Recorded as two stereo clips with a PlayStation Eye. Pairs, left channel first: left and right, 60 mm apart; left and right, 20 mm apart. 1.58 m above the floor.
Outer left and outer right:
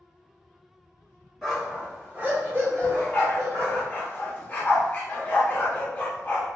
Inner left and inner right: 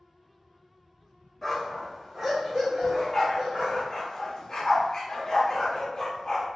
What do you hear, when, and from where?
1.4 s a dog barking: centre (ahead or behind), 1.5 m; by 3.8 s 60° right (ahead or behind), 2.5 m
2.8 s a dog barking: 25° left (ahead or behind), 1.1 m